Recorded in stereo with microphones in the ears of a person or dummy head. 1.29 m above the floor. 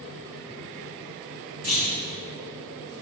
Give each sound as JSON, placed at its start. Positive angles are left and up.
{"t": 1.6, "sound": "a clunk", "side_deg": -50, "distance_m": 1.7}